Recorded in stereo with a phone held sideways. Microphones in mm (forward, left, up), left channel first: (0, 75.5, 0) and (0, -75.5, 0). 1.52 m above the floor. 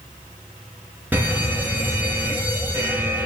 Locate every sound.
1.1 s a fire alarm: 10° right (ahead or behind), 2.5 m